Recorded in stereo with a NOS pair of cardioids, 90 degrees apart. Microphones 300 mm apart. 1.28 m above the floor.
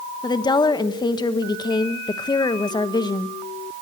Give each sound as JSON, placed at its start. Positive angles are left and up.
{"t": 0.2, "sound": "a woman speaking", "azimuth_deg": 15, "distance_m": 1.1}